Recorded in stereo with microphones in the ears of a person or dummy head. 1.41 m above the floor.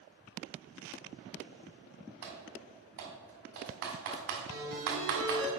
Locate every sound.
2.2 s typing on a keyboard: 45° right (ahead or behind), 1.4 m
4.5 s a ringtone: 65° right (ahead or behind), 2.5 m